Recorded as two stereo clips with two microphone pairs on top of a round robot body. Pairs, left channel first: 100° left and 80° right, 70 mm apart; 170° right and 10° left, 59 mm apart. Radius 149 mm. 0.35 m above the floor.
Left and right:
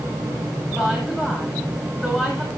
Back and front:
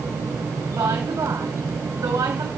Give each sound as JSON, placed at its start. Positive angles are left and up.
{"t": 0.7, "sound": "a woman speaking", "azimuth_deg": 15, "distance_m": 5.0}